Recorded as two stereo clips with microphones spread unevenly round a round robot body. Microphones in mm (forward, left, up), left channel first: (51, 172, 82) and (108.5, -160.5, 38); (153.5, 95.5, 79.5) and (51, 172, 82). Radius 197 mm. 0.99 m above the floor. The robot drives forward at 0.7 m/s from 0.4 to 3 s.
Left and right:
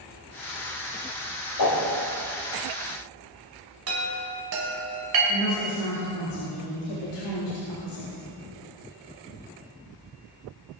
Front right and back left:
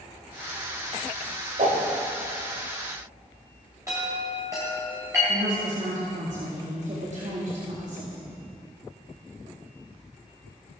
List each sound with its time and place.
1.6 s a whoosh: 130° left, 1.3 m; by 1.9 s 140° left, 1.5 m
3.9 s a chime: 135° right, 1.8 m
5.3 s a woman speaking: 120° left, 2 m